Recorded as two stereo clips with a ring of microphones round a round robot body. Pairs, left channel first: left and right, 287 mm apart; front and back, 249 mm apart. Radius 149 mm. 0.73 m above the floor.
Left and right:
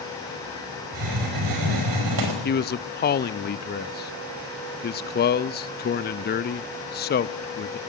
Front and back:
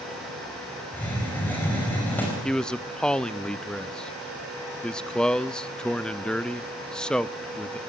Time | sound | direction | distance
0.9 | a hiss | 85° right | 5 m
2.4 | a man speaking | 85° left | 0.6 m